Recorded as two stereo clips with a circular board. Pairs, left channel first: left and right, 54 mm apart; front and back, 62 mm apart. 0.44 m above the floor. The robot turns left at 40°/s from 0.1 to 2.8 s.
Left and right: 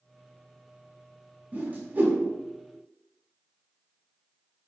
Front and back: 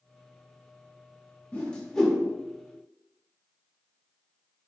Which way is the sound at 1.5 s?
55° right.